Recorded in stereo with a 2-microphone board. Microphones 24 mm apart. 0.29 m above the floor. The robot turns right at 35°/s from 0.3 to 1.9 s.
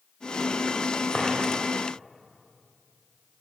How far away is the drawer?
About 5.5 m.